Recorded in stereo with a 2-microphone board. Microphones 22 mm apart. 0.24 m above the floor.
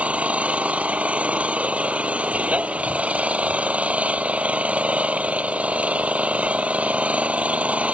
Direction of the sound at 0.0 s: 75° right (ahead or behind).